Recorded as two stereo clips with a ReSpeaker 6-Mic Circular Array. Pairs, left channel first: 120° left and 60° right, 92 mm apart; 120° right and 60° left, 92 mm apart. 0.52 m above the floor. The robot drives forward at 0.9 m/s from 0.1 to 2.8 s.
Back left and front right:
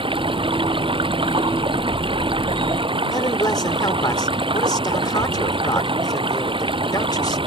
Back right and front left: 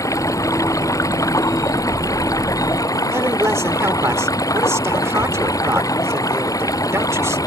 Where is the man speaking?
110° left.